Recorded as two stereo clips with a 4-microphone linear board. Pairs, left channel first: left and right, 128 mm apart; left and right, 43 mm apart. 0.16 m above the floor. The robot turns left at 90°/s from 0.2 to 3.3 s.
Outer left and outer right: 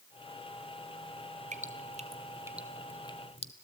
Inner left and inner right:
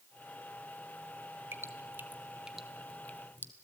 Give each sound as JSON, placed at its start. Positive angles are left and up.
{"t": 1.5, "sound": "dripping", "side_deg": -70, "distance_m": 1.1}